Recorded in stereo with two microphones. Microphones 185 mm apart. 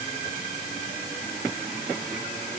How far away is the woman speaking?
No woman speaking in this recording.